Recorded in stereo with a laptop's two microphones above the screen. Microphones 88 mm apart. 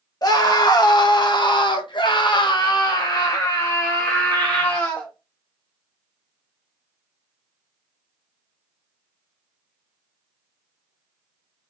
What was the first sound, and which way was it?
A scream, 45° left (ahead or behind).